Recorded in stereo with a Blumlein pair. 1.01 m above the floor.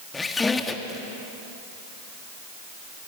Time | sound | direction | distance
0.1 | a squeak | 15° left | 1.5 m